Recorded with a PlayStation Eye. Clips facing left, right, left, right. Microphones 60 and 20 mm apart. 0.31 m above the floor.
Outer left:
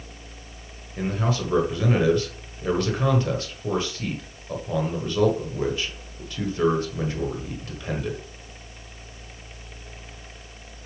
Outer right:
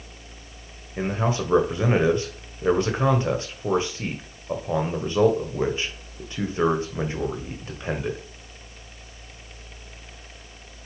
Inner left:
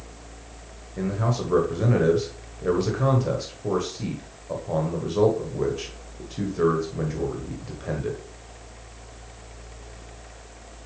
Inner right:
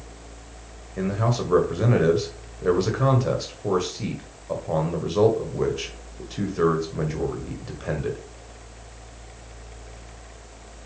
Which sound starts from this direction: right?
A man speaking, at 1.0 s.